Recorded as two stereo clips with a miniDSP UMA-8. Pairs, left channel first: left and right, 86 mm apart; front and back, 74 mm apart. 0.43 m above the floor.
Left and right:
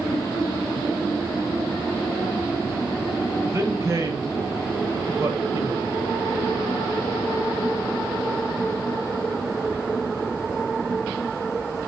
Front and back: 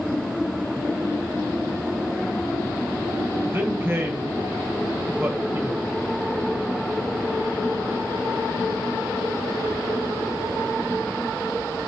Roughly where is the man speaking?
Behind right.